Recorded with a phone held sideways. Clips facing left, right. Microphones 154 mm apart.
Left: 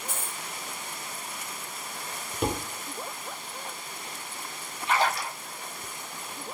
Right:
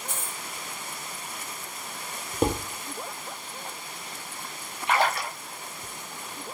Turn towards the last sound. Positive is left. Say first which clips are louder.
# right 1 dB
turn(degrees=-60)  # may be behind; listen again after turning